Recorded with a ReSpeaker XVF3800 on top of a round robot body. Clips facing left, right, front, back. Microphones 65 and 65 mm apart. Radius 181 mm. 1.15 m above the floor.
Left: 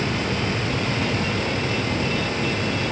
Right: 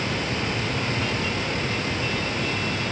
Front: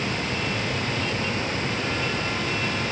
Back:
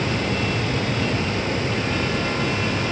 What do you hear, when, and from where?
Only background noise.